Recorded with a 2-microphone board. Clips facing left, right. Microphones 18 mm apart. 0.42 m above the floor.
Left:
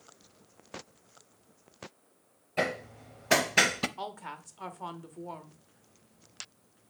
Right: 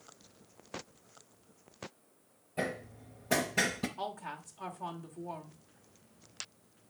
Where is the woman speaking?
20° left (ahead or behind), 1.0 m.